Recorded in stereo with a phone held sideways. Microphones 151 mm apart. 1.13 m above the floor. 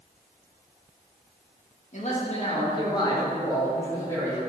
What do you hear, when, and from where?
1.9 s a man speaking: 50° left (ahead or behind), 1.9 m; by 4.4 s 10° left (ahead or behind), 3.5 m